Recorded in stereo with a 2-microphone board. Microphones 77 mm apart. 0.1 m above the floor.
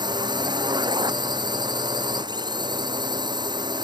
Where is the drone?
70° right (ahead or behind).